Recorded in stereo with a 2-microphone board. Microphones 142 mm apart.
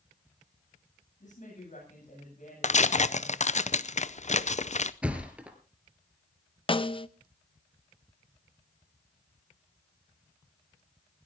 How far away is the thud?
About 2 m.